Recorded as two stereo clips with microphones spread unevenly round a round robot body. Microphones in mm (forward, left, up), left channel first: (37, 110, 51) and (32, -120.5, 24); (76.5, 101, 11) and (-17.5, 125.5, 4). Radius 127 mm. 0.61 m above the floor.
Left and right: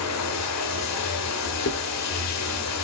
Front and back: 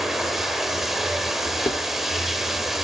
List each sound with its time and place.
0.0 s running water: 80° left, 1.7 m
1.7 s dishes clattering: 45° left, 1.2 m